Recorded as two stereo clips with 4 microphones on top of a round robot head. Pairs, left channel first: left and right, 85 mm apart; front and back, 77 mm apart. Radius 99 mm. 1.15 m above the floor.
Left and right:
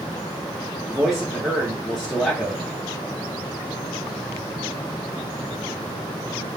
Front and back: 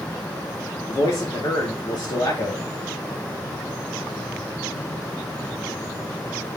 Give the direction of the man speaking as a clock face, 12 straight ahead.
12 o'clock.